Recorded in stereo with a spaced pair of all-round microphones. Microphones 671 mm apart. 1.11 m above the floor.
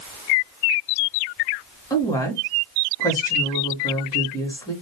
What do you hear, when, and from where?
1.9 s a woman speaking: 5° left (ahead or behind), 1.4 m